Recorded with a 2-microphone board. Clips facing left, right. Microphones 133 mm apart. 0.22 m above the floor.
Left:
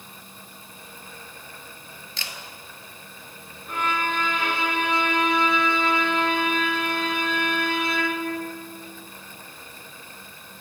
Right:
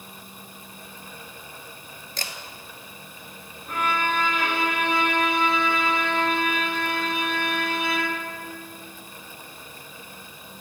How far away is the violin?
About 4.5 m.